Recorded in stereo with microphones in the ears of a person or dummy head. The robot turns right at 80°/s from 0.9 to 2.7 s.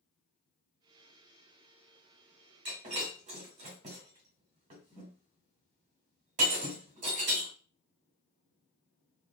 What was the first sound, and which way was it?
Breaking glass, 25° right (ahead or behind).